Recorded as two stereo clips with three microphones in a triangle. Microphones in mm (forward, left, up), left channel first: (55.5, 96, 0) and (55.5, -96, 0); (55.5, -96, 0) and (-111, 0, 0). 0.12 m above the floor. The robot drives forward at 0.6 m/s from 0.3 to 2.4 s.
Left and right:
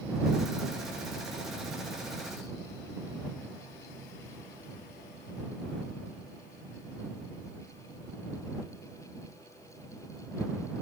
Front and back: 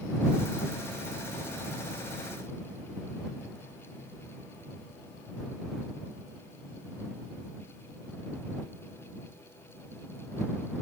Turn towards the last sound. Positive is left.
No sound to turn to.